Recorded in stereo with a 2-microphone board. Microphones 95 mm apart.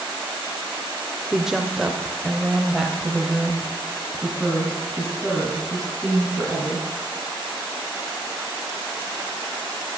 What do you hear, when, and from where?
1.3 s a woman speaking: 5° right (ahead or behind), 1.0 m; by 6.9 s centre (ahead or behind), 4 m